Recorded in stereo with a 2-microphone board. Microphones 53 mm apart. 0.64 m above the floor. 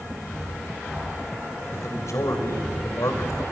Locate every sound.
1.7 s a man speaking: 70° left (ahead or behind), 3 m